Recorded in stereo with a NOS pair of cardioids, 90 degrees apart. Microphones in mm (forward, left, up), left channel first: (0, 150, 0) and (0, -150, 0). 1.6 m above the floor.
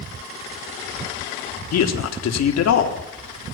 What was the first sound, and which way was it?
A man speaking, 60° left.